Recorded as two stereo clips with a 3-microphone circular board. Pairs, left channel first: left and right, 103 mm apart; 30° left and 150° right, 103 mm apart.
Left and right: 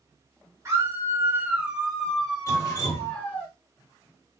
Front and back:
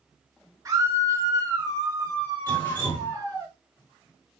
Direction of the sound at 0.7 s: 130° right.